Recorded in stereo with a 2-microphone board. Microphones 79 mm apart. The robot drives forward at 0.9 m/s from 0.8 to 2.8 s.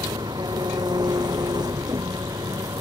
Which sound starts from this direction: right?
An engine running, at 0.0 s.